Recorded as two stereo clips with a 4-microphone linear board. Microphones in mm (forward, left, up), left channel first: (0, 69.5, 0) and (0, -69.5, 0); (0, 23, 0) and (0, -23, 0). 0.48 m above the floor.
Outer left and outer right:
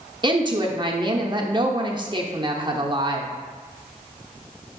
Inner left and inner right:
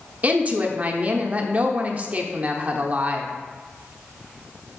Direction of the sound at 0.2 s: 30° right (ahead or behind).